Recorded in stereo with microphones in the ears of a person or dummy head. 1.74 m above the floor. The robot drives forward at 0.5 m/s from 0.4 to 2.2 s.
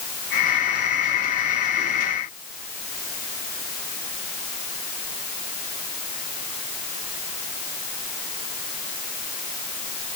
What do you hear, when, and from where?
Only background noise.